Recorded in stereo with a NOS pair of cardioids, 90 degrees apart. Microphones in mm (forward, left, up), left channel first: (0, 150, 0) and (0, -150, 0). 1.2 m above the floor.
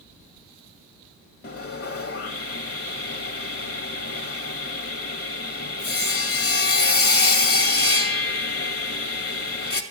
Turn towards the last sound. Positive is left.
turn(degrees=50)